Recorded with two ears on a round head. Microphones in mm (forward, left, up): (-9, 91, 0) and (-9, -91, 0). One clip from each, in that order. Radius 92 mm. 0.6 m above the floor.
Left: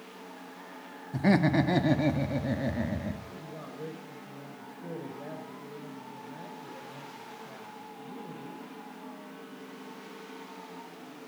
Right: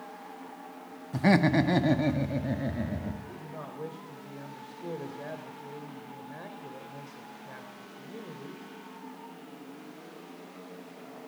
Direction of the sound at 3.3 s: 55° right (ahead or behind).